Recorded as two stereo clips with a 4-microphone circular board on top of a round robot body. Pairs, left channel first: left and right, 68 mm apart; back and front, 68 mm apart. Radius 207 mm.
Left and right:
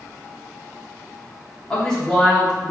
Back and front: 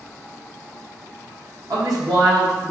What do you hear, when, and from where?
1.7 s a woman speaking: 15° left, 1.1 m; by 2.7 s 15° right, 1.3 m